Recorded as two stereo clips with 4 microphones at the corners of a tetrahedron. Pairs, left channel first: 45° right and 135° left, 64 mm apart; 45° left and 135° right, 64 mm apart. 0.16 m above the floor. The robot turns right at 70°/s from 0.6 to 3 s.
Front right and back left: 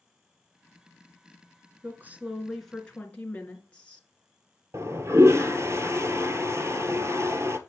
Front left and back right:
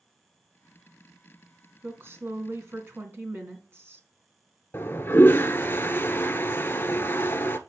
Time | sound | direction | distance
1.8 | a woman speaking | 175° left | 2.5 m
4.7 | a toilet flushing | 100° left | 0.8 m